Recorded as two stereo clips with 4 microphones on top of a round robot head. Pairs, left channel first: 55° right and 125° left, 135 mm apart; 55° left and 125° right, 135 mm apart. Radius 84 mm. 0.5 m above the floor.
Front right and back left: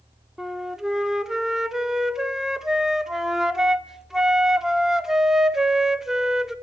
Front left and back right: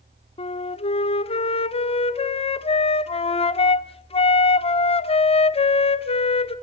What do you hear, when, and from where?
0.4 s a flute: 40° left, 1.1 m